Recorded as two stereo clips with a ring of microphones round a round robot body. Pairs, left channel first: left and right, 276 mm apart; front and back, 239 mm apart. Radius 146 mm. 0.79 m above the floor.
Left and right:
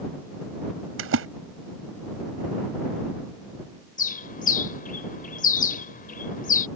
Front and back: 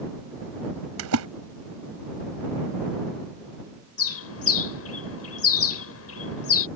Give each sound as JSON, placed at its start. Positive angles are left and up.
{"t": 1.0, "sound": "a splash", "azimuth_deg": -140}
{"t": 4.0, "sound": "a bird", "azimuth_deg": 25}